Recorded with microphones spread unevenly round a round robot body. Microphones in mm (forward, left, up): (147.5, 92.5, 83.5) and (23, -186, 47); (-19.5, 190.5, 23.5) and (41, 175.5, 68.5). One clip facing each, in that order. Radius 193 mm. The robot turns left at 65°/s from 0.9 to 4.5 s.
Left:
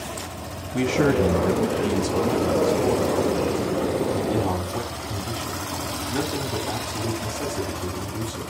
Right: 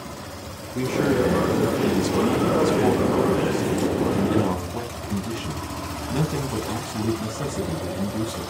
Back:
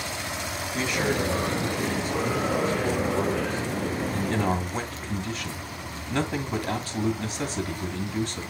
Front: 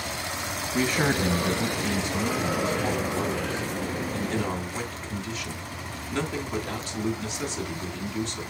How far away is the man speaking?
About 2.5 m.